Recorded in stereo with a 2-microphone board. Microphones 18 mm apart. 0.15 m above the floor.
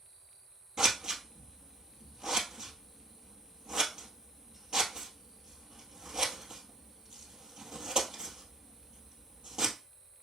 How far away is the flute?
No flute in this recording.